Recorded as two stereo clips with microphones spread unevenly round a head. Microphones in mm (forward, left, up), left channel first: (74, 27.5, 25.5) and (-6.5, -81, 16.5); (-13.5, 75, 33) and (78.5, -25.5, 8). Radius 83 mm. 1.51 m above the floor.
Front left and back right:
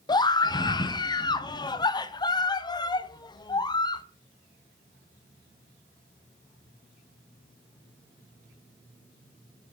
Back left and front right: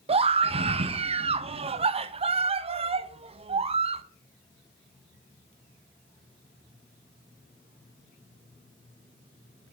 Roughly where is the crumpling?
I don't hear crumpling.